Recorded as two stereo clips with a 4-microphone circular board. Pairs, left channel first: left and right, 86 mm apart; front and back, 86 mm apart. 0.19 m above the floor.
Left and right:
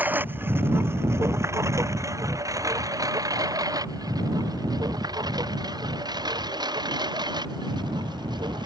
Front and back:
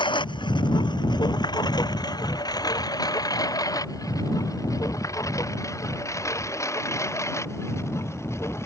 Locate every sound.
0.0 s a lawn mower: 20° right; by 8.7 s 60° right